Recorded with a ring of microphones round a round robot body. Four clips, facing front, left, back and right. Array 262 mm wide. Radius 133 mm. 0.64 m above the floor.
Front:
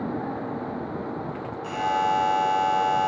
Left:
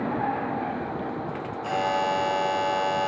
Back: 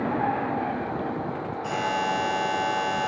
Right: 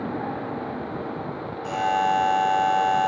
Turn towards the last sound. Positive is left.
turn(degrees=110)